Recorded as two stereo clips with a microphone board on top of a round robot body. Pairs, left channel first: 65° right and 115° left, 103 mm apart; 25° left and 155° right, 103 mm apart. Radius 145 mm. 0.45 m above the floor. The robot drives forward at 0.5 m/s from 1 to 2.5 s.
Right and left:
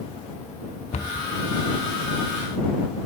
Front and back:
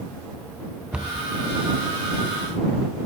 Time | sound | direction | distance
0.9 | a cupboard door | 75° right | 0.6 m